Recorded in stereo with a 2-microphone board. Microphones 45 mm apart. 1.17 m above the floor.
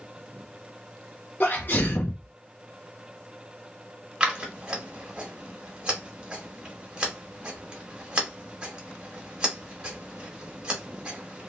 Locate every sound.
1.4 s a sneeze: 50° left (ahead or behind), 0.6 m
4.2 s scissors: 20° right (ahead or behind), 1.3 m